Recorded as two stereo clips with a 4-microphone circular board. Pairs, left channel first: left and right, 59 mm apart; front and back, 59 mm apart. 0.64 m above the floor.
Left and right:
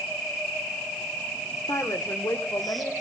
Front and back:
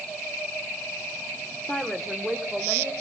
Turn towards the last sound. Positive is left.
turn(degrees=110)